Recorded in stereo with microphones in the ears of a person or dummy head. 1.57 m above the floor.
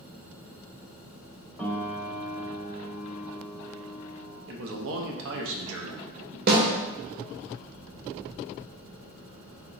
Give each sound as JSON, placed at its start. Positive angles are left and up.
{"t": 1.6, "sound": "a piano", "side_deg": 5, "distance_m": 0.9}
{"t": 4.5, "sound": "a man speaking", "side_deg": -75, "distance_m": 0.8}
{"t": 6.5, "sound": "a snare drum", "side_deg": -55, "distance_m": 1.1}